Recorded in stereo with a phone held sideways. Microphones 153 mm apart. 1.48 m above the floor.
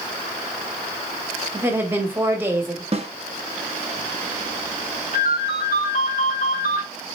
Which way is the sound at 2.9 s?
45° right (ahead or behind).